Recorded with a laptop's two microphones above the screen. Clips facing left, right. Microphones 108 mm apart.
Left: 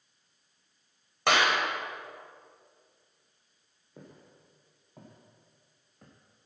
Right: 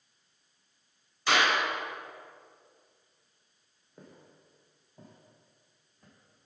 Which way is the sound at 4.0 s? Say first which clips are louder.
Left 2 dB; 80° left.